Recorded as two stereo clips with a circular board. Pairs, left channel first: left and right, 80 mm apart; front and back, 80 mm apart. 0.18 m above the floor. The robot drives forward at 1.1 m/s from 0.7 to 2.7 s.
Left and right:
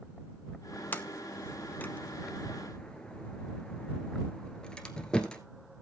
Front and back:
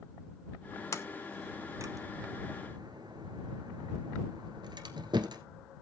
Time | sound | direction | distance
0.9 | a sliding door | 30° left | 0.8 m